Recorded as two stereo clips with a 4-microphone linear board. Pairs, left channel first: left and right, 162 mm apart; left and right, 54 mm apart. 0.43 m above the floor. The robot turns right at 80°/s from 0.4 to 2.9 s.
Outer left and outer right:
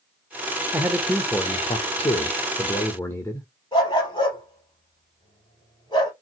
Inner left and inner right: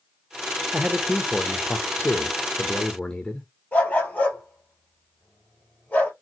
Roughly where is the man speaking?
Ahead right.